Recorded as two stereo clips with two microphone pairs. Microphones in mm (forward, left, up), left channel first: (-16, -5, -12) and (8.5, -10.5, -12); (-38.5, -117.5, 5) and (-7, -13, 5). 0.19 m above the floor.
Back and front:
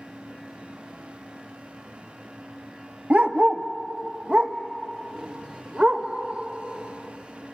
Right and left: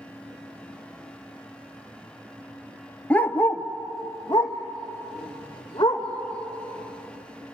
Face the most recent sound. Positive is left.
turn(degrees=-55)